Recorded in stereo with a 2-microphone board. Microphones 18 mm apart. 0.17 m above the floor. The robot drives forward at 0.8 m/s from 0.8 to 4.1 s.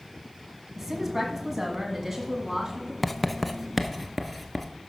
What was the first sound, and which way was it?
A woman speaking, 10° right (ahead or behind).